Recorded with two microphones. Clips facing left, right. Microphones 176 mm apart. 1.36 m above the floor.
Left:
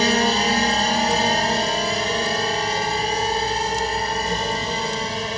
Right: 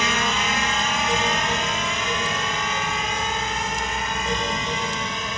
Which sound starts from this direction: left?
A drone, at 0.0 s.